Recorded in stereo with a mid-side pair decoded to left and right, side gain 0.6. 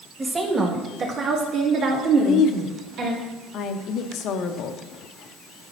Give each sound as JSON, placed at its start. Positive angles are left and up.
{"t": 0.2, "sound": "a woman speaking", "azimuth_deg": -25, "distance_m": 1.6}
{"t": 2.2, "sound": "a woman speaking", "azimuth_deg": 60, "distance_m": 0.8}